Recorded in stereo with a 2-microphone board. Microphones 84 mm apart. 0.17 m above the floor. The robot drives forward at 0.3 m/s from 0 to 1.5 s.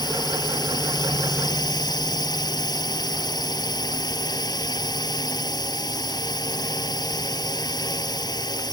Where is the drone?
55° left (ahead or behind).